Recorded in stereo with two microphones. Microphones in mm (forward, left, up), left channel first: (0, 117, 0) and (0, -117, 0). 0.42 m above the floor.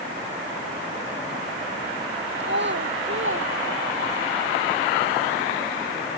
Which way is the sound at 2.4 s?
50° right (ahead or behind).